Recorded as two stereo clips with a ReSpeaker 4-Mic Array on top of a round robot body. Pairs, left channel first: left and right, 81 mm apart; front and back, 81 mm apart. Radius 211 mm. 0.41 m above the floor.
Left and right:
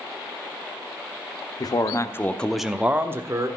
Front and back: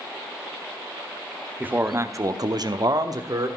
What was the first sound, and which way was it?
A man speaking, 110° left.